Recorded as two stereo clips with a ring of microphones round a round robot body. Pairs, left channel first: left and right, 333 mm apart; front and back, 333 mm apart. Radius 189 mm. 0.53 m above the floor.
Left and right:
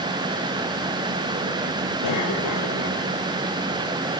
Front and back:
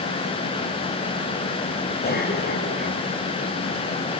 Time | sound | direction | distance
2.0 | a cough | 60° left | 4 m